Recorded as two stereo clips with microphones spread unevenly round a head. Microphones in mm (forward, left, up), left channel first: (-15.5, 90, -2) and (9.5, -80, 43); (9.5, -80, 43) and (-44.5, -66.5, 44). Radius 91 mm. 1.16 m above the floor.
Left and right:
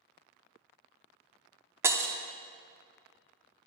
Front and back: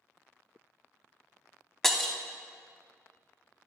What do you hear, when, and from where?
1.8 s breaking glass: 95° right, 0.7 m